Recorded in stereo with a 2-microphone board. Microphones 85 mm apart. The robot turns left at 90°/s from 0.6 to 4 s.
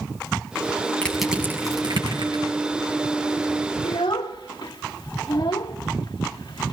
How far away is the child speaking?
About 0.8 m.